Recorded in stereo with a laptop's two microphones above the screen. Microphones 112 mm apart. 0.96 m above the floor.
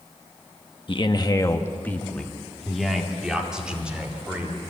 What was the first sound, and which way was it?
A man speaking, 45° left (ahead or behind).